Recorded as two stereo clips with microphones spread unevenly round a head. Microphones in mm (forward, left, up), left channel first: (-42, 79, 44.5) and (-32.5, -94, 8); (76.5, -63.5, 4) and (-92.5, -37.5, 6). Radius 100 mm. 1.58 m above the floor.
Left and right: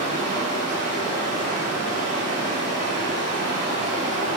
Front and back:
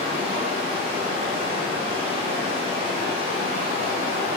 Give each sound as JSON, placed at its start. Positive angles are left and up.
{"t": 0.0, "sound": "running water", "azimuth_deg": -140, "distance_m": 0.8}